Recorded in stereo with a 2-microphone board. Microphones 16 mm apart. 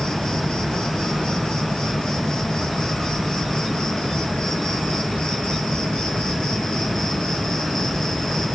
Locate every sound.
0.0 s an insect: 70° left (ahead or behind), 4 m